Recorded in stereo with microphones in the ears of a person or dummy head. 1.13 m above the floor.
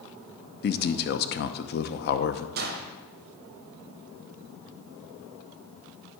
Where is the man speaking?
55° left (ahead or behind), 0.7 m.